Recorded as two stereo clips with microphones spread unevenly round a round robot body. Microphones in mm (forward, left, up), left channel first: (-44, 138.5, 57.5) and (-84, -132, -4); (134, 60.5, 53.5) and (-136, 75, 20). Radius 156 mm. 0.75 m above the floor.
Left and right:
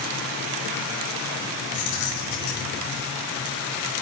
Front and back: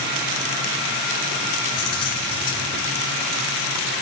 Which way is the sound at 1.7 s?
25° left.